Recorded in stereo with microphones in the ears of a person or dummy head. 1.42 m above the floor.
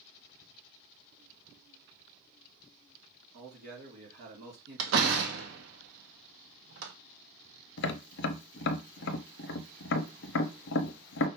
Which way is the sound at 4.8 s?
75° right (ahead or behind).